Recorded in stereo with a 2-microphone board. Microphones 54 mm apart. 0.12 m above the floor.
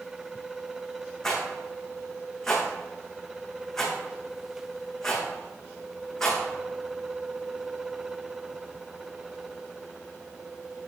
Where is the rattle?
5° left (ahead or behind), 4.5 m.